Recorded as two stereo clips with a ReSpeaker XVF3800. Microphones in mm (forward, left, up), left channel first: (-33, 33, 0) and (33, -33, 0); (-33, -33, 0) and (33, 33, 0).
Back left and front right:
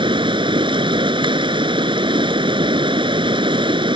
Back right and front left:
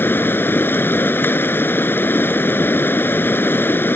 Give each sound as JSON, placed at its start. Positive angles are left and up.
{"t": 0.0, "sound": "running water", "azimuth_deg": -70}